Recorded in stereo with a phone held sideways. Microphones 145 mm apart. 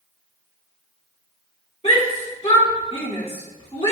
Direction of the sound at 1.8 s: 45° left (ahead or behind).